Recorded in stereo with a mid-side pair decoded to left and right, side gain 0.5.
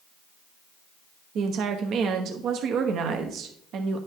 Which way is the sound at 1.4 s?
65° right.